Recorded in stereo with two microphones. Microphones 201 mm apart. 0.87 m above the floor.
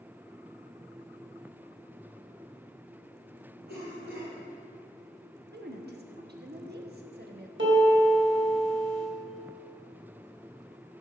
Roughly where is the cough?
Right.